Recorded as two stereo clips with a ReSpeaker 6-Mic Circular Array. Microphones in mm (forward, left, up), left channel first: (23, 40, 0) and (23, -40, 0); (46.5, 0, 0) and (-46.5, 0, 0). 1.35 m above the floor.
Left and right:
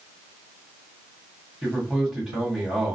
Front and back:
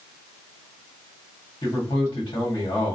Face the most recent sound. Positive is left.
turn(degrees=-10)